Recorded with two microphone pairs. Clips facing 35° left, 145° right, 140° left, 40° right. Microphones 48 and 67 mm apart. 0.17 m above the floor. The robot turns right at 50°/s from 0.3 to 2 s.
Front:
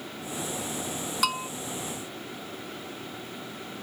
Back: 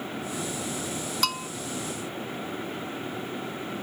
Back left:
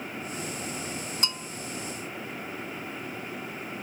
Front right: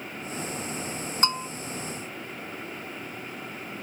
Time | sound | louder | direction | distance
1.2 | a bell | front 3 dB, front right 8 dB | 45° right | ?